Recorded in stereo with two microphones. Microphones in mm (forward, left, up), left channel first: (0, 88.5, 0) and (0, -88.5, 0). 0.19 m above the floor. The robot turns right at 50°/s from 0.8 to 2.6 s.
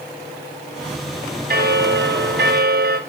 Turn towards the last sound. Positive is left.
turn(degrees=-65)